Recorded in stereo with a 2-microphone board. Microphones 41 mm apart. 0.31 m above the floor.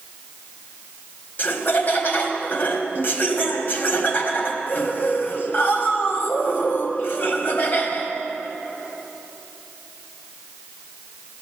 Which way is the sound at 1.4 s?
50° left (ahead or behind).